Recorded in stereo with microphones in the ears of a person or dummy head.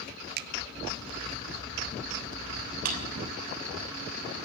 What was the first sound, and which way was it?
A finger snap, 55° right (ahead or behind).